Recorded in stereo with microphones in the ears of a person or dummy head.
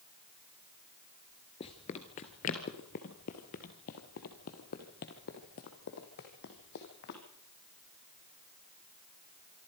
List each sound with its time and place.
1.6 s running footsteps: 20° left (ahead or behind), 1.3 m; by 7.2 s 55° left (ahead or behind), 4 m